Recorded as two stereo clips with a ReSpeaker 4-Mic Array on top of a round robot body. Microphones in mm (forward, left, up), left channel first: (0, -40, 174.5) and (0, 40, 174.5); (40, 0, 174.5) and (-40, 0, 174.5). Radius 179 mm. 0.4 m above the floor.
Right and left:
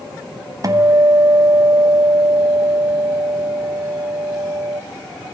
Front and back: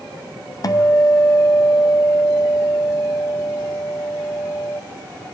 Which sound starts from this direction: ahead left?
A guitar, at 0.6 s.